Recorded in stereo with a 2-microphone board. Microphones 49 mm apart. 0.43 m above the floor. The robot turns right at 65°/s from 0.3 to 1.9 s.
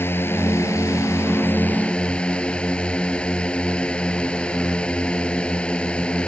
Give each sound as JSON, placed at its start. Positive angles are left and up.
{"t": 0.0, "sound": "a drone", "azimuth_deg": 50}